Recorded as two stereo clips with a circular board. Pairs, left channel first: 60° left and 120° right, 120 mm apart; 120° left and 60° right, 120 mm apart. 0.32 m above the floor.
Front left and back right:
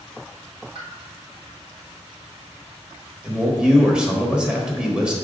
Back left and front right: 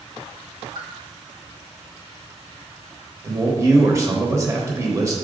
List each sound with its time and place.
0.8 s a pop: 90° right, 2.5 m
3.2 s a man speaking: 45° right, 0.9 m